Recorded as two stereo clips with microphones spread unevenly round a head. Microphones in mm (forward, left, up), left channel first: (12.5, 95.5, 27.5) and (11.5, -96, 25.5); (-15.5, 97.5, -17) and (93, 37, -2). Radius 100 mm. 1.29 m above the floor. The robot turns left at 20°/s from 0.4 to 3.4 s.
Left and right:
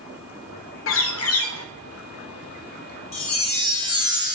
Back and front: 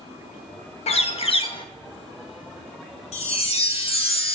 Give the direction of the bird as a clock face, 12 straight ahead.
8 o'clock.